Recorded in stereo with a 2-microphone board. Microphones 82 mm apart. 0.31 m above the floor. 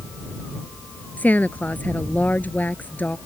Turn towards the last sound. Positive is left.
turn(degrees=20)  # may be behind; listen again after turning